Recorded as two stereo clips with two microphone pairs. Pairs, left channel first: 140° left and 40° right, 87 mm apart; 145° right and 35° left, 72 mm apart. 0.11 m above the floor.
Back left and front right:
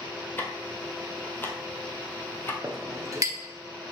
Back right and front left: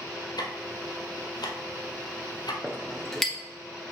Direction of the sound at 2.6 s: 65° right.